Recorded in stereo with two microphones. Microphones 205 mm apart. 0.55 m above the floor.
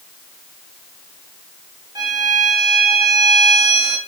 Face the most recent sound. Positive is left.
turn(degrees=-20)  # may be behind; listen again after turning